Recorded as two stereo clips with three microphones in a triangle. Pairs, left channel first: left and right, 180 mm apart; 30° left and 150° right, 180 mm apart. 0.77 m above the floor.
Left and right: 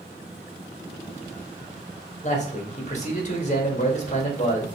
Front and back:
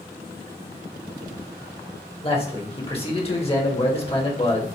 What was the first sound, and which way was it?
A man speaking, 70° left.